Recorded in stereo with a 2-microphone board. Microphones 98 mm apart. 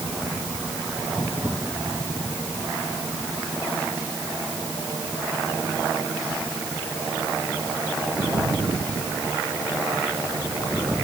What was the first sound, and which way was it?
Only background noise.